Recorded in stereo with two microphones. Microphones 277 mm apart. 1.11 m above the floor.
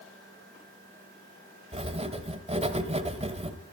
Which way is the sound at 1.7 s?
20° right (ahead or behind).